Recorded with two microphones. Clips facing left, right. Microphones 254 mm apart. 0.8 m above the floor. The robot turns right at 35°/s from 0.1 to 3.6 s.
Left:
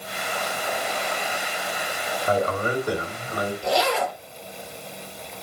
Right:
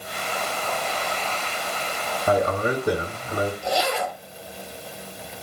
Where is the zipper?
80° left, 1.9 m.